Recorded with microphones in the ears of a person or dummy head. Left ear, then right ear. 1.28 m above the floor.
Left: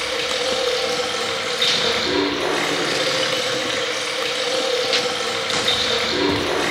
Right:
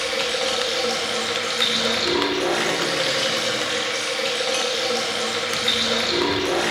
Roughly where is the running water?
Centre.